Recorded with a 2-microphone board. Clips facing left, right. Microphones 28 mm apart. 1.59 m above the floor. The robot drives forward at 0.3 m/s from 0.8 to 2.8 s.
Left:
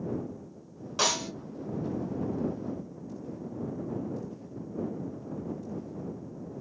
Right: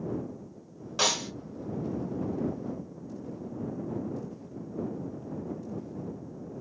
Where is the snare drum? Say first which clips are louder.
Even; centre (ahead or behind), 1.2 m.